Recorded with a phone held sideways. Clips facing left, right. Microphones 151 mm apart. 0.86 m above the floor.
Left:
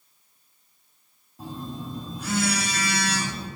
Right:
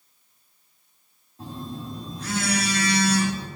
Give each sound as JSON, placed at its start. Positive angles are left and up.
{"t": 1.4, "sound": "a phone buzzing", "side_deg": 10, "distance_m": 2.5}